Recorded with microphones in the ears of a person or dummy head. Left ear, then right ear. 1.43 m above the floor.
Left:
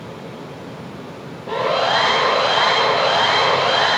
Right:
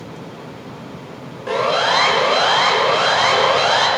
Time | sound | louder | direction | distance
1.5 | a siren | right 1 dB | 70° right (ahead or behind) | 8.5 m